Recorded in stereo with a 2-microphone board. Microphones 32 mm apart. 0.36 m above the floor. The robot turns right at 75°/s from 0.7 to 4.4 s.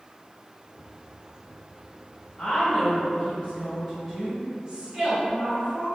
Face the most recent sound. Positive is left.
turn(degrees=-120)